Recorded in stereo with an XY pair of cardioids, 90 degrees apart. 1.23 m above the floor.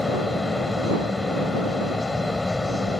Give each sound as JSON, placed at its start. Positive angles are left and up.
{"t": 0.0, "sound": "a fan", "azimuth_deg": 20}